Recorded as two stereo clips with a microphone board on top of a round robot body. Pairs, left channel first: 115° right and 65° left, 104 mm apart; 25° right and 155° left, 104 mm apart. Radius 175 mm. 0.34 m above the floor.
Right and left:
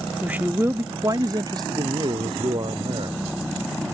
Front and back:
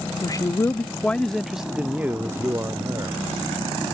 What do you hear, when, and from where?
0.2 s a man speaking: 5° right; by 3.2 s 105° left